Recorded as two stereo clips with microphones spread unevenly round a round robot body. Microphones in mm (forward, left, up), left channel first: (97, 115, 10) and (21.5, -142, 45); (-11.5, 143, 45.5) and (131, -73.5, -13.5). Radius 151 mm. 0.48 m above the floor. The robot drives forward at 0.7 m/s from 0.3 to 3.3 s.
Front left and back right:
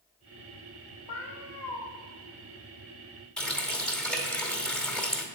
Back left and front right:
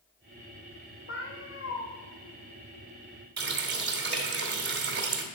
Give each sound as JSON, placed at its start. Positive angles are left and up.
{"t": 1.1, "sound": "a cat meowing", "azimuth_deg": 80, "distance_m": 3.5}
{"t": 3.4, "sound": "a running tap", "azimuth_deg": -10, "distance_m": 1.9}